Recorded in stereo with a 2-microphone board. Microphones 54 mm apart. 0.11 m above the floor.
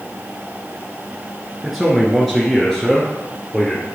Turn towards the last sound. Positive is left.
turn(degrees=10)  # may be behind; listen again after turning